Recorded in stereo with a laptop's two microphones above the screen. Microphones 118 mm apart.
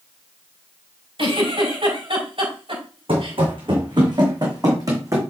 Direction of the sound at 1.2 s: 50° right (ahead or behind).